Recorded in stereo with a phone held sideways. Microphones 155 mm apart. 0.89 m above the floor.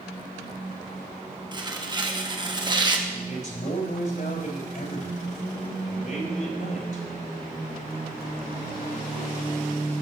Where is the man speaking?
60° left (ahead or behind), 3.5 m.